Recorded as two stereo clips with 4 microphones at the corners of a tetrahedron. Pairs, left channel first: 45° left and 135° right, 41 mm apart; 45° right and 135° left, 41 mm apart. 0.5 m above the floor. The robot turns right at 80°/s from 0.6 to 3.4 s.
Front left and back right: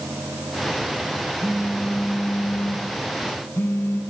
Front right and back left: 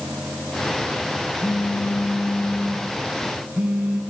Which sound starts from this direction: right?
A phone buzzing, at 1.4 s.